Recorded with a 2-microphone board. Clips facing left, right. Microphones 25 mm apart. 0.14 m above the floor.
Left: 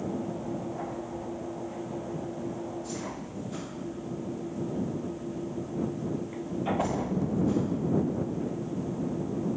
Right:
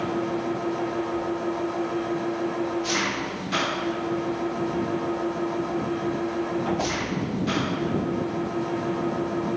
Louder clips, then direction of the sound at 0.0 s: Right 7 dB; 65° right (ahead or behind).